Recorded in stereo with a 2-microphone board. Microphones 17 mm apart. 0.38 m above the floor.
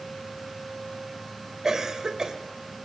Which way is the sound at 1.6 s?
40° right (ahead or behind).